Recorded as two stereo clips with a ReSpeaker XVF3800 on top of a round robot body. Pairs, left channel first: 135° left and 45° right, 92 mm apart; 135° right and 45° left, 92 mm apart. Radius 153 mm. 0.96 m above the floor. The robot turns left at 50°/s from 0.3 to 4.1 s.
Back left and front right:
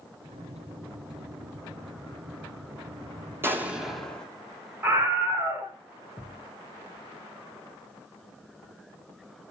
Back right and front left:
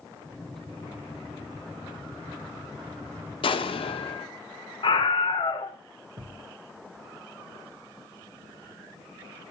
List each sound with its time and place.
3.4 s an explosion: 110° right, 3 m; by 4.3 s 145° right, 3 m
4.8 s a scream: 110° right, 4 m
6.2 s a thud: 75° left, 4 m